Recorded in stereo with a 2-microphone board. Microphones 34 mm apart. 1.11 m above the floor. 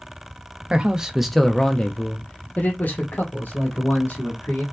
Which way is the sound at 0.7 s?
30° right (ahead or behind).